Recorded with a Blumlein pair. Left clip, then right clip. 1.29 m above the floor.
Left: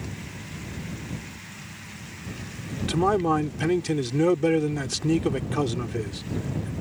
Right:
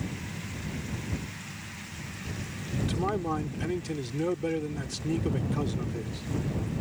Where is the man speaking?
65° left.